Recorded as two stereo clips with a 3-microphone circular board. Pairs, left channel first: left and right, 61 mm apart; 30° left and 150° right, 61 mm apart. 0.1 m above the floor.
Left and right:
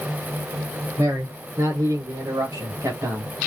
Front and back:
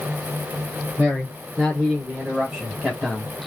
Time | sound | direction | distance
1.0 | a man speaking | 80° right | 3.5 m